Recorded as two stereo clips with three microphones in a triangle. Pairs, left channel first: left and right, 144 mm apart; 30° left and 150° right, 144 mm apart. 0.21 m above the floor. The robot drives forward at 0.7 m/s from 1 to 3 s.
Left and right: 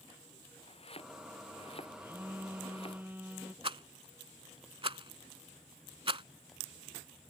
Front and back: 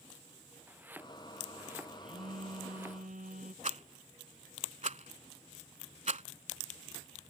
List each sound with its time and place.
0.7 s chopping: 135° left
2.0 s a phone buzzing: 165° right
3.6 s a rattle: 135° right